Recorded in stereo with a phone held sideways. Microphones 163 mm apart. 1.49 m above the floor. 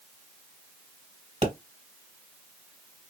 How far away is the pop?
About 1.9 m.